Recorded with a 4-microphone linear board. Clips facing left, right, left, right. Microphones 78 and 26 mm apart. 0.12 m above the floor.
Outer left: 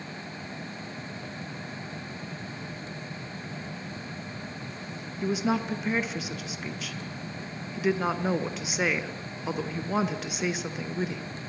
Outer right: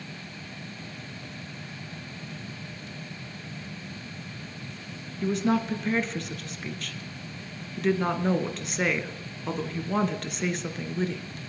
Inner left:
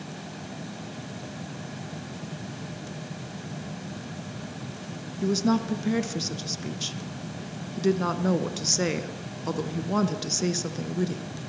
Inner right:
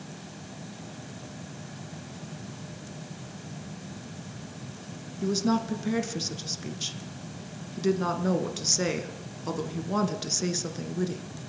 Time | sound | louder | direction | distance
5.2 | a woman speaking | outer right 2 dB, inner left 2 dB | 5° left (ahead or behind) | 1.5 m